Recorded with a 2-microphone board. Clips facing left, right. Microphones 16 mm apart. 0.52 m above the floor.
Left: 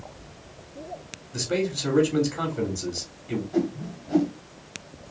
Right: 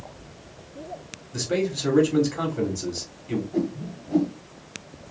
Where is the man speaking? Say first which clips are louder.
Right 1 dB; 5° right (ahead or behind), 1.9 m.